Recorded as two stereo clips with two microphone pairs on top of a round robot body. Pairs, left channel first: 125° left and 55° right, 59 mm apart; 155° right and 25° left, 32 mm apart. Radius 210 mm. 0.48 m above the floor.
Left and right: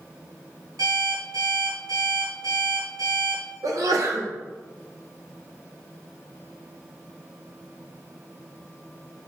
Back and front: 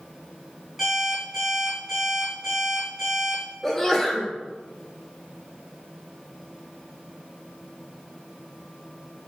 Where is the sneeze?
70° right, 1.7 m.